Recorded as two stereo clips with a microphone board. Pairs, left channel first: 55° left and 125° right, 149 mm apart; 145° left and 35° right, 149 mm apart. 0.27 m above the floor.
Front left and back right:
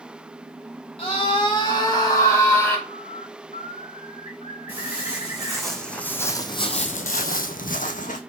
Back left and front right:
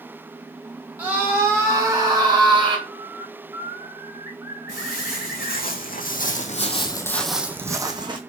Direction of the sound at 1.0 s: 35° left.